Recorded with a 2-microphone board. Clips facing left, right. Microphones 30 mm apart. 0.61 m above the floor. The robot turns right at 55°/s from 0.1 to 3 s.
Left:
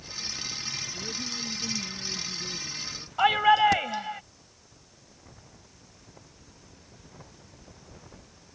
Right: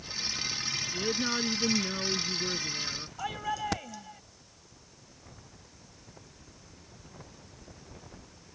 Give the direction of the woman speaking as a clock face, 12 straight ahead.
5 o'clock.